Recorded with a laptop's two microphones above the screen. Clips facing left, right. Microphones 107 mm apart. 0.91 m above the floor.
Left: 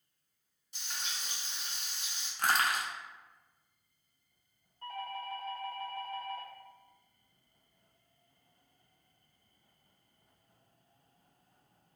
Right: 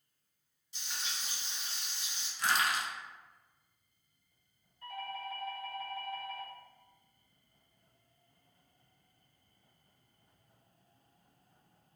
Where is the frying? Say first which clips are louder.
Even; 55° left (ahead or behind), 1.5 m.